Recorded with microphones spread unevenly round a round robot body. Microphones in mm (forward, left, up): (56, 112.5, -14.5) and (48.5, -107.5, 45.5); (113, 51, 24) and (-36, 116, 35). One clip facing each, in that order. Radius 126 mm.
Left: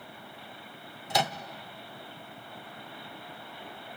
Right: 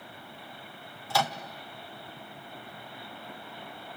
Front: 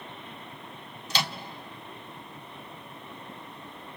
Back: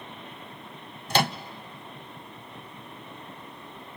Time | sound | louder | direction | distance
1.1 | a microwave | even, back 8 dB | 135° left | 0.8 m